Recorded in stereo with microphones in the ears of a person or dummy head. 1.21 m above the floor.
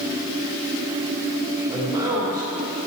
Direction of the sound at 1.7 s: 25° right (ahead or behind).